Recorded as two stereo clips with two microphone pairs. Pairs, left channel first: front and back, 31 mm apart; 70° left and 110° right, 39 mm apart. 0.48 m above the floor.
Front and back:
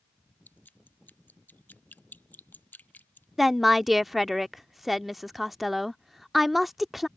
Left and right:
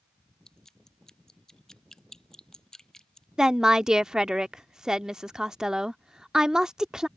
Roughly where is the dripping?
Ahead.